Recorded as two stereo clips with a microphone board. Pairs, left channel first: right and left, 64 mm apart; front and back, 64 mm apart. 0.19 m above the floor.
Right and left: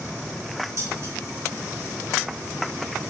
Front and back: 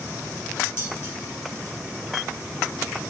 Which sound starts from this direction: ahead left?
Dishes clattering, at 0.8 s.